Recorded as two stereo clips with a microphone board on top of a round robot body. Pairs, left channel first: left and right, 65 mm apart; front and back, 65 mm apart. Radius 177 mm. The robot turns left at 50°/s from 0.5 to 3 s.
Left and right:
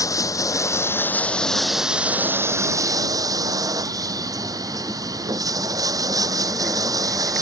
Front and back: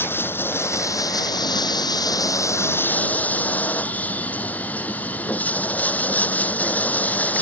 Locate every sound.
0.0 s running water: 60° left; by 7.4 s 65° right